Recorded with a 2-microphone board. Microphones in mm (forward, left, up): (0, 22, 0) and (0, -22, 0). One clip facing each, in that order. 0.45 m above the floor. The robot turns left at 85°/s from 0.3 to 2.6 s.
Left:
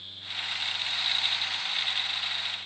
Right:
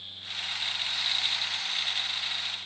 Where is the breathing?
No breathing in this recording.